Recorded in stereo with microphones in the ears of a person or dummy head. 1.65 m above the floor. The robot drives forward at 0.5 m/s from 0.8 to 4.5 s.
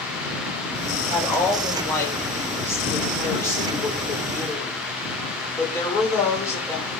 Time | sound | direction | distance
1.1 | a woman speaking | 10° left (ahead or behind) | 7 m